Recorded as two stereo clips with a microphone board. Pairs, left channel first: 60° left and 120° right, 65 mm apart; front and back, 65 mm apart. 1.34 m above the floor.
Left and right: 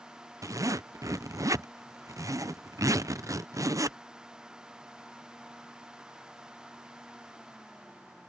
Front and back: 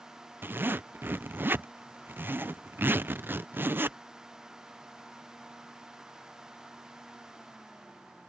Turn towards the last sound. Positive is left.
turn(degrees=-130)